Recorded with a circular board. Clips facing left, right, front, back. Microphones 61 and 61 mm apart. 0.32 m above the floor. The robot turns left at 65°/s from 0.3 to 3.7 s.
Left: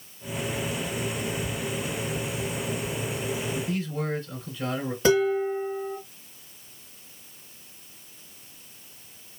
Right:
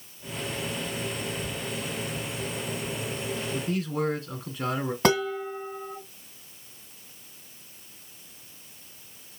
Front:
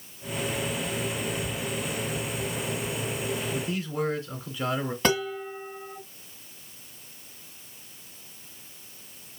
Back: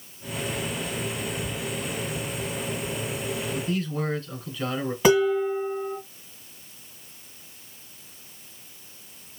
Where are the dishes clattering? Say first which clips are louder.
Left 4 dB, back 9 dB; 100° right, 2 m.